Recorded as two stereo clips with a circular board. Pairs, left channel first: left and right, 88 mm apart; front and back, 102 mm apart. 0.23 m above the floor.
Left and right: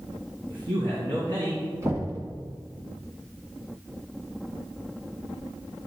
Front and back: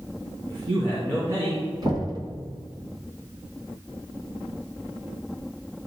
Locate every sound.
0.5 s a man speaking: 125° right, 2 m
1.8 s knocking: 140° right, 1.8 m